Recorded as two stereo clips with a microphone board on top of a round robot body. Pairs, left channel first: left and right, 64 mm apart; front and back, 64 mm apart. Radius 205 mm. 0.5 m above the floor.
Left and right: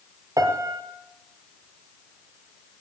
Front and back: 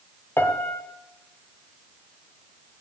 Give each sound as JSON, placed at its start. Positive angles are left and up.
{"t": 0.4, "sound": "a piano", "azimuth_deg": -55, "distance_m": 0.6}